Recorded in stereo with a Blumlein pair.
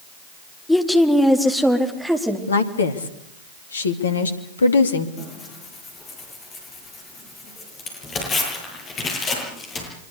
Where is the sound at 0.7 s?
5° left, 2.5 m; by 2.4 s 5° right, 4.5 m.